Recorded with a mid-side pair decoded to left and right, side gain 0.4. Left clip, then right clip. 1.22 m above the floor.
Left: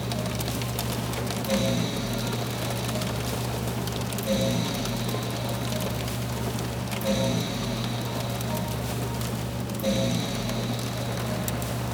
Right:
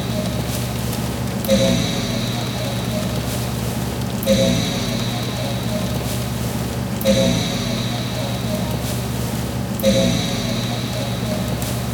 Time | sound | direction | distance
0.0 | a fan | 70° right | 0.8 m